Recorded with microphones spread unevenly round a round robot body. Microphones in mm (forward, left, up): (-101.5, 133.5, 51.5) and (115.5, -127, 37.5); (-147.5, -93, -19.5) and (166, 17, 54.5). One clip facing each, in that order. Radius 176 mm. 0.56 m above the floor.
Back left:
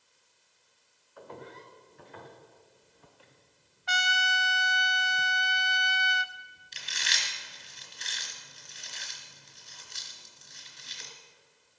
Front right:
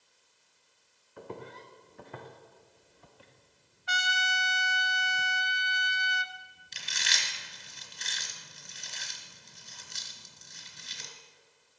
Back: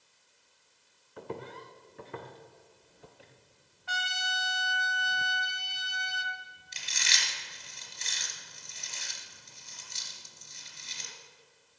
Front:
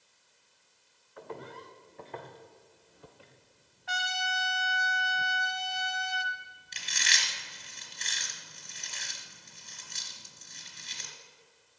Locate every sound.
1.2 s footsteps: 110° right, 2 m; by 3.3 s 60° right, 3 m
3.9 s a trumpet: 110° left, 0.7 m
6.7 s chewing: 45° right, 3 m